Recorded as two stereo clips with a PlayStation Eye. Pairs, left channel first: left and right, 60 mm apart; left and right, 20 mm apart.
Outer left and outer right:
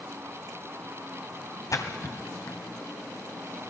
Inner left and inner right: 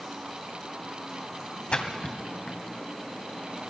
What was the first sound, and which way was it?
A splash, 60° left (ahead or behind).